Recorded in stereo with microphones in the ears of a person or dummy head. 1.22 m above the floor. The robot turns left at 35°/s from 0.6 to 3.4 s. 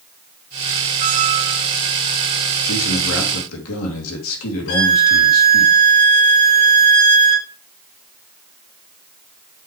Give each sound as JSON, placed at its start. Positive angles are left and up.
{"t": 1.0, "sound": "a squeak", "side_deg": -45, "distance_m": 0.5}
{"t": 2.6, "sound": "a man speaking", "side_deg": 70, "distance_m": 2.5}
{"t": 4.7, "sound": "a violin", "side_deg": 70, "distance_m": 4.0}